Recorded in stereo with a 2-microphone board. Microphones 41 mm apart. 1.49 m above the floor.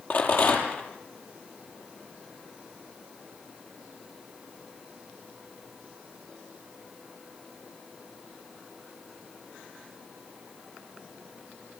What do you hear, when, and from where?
0.1 s a rattle: 60° left (ahead or behind), 6.5 m